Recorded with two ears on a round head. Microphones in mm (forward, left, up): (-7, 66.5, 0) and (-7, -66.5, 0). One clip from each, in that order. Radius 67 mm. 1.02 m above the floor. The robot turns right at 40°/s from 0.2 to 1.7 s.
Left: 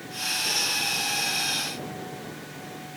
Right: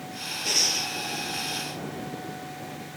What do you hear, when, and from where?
0.5 s breathing: 30° right (ahead or behind); by 0.9 s 50° right (ahead or behind)